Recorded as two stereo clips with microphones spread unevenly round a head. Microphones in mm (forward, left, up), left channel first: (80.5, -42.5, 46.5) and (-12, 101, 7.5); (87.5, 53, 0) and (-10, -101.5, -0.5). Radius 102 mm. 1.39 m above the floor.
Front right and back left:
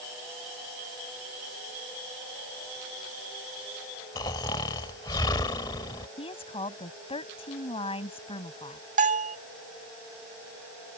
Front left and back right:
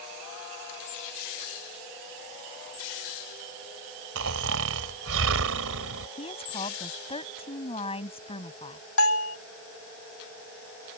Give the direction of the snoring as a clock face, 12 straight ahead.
4 o'clock.